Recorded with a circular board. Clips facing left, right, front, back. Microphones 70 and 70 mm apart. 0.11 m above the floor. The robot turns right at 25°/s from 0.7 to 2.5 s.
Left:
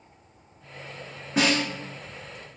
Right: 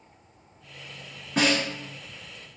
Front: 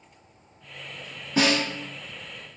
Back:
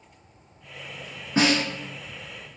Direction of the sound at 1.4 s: 175° left.